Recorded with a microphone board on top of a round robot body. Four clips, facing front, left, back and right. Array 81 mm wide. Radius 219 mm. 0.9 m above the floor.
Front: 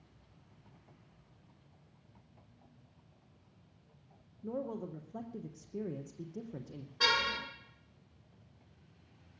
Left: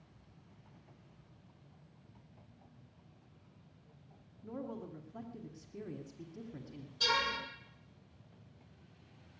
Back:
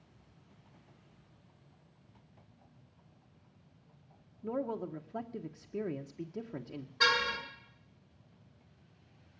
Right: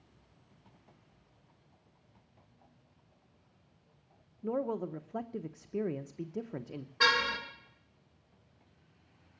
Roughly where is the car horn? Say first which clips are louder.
Right 5 dB, back 2 dB; right.